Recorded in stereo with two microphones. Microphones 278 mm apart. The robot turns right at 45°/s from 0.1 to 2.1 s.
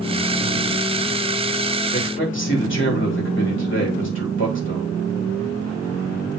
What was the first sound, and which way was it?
A man speaking, 35° left (ahead or behind).